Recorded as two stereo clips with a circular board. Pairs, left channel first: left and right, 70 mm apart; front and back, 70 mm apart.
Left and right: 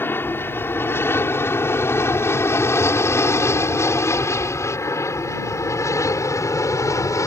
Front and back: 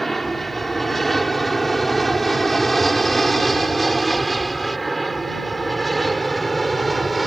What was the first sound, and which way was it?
An aircraft, 85° left.